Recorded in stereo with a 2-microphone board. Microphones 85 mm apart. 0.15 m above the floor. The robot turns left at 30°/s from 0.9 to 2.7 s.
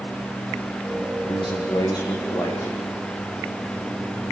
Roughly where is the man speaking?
Left.